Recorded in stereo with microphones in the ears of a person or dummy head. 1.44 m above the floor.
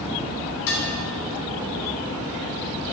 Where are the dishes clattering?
60° left (ahead or behind), 1.2 m.